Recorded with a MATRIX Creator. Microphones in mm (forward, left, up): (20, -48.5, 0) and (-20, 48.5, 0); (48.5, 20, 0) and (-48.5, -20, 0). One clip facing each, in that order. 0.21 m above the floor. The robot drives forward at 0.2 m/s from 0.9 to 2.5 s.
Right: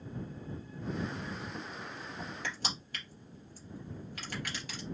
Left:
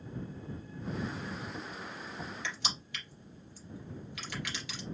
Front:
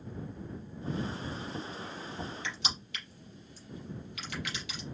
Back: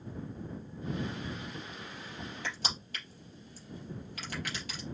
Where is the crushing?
115° right, 3 m.